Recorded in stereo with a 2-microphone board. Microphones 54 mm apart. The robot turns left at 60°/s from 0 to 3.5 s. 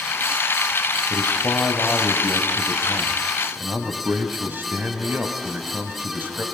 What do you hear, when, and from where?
1.1 s a man speaking: 95° left, 2.5 m; by 6.5 s 50° right, 2.5 m